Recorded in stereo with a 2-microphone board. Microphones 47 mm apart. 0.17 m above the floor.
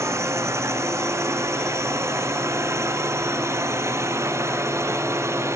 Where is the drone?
70° right (ahead or behind).